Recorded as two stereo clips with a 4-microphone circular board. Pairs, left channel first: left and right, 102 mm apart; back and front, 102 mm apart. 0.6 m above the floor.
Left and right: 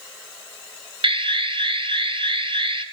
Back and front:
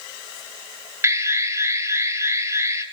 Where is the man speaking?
I don't hear a man speaking.